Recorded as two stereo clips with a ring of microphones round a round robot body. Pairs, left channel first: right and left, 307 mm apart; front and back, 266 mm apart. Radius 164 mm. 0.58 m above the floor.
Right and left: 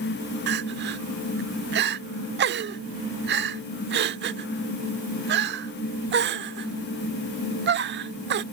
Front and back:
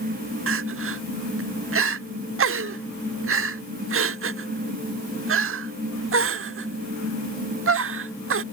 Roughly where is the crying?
Behind left.